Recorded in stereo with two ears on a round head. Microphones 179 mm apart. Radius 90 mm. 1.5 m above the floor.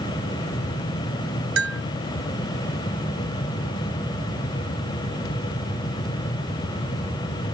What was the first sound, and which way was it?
A bell, 75° right (ahead or behind).